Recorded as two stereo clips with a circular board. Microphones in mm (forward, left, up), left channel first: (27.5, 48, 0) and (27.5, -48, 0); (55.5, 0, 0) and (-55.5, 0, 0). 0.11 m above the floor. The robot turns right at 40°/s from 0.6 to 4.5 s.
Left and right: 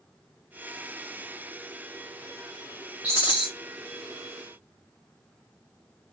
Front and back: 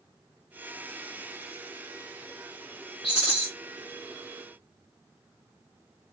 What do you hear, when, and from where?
3.0 s a rattle: 40° left, 2 m; by 3.5 s 55° left, 2 m